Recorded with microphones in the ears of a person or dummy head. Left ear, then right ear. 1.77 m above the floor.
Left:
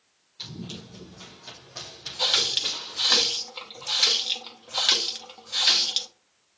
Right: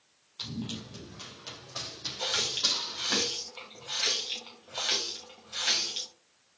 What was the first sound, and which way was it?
Running footsteps, 40° right (ahead or behind).